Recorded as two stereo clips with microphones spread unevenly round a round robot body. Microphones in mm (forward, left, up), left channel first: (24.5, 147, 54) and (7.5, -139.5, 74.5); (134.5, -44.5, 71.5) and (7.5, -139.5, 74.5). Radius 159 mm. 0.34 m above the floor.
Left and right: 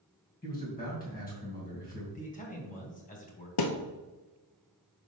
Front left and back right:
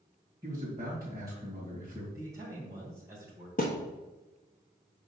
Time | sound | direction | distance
0.4 | a man speaking | 145° left | 2 m
2.1 | a man speaking | 145° left | 1.7 m
3.6 | a thud | 95° left | 0.9 m